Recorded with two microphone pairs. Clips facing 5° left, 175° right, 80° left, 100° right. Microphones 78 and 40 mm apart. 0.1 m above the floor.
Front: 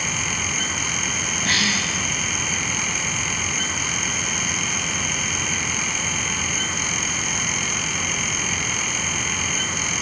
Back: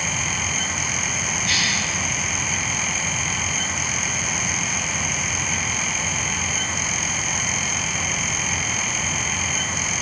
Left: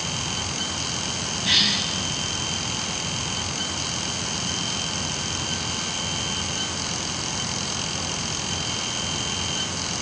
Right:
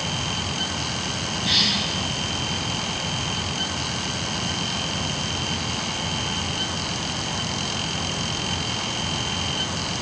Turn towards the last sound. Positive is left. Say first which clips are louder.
# front 3 dB, left 1 dB
turn(degrees=0)